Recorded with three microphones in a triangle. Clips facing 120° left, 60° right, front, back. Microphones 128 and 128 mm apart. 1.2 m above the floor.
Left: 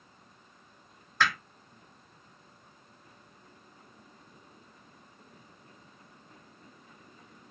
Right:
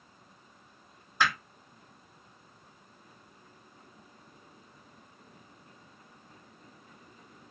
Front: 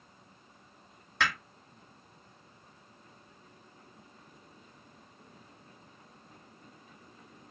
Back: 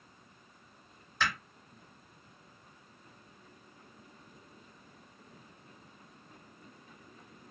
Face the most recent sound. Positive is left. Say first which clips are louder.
# even, front 2 dB
turn(degrees=15)